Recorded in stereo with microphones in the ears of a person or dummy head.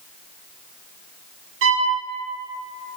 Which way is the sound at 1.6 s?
65° right (ahead or behind).